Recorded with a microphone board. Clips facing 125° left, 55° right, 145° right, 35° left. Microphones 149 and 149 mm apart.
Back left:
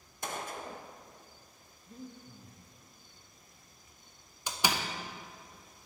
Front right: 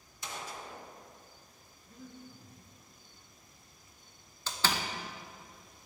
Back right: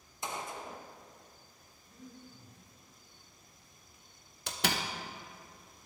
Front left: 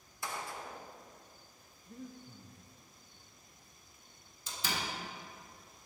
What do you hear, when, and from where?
0.2 s a gunshot: 150° left, 0.5 m
1.9 s breathing: 65° left, 0.9 m
4.5 s a door slam: 160° right, 0.6 m